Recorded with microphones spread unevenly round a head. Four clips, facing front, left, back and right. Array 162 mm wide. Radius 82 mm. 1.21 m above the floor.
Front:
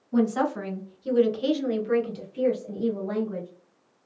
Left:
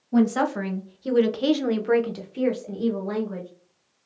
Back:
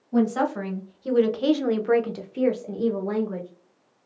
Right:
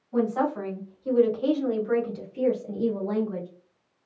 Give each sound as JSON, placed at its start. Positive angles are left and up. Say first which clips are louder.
{"t": 0.1, "sound": "a woman speaking", "louder": "left 4 dB, back 1 dB", "azimuth_deg": 80, "distance_m": 1.2}